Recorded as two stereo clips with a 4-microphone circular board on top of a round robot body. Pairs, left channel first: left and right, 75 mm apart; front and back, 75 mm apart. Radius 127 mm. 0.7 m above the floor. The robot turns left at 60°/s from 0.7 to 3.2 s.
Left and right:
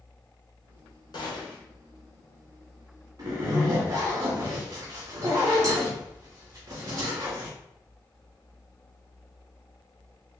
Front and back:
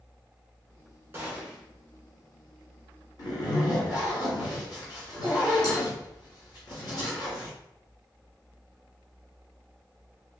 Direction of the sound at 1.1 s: 115° left.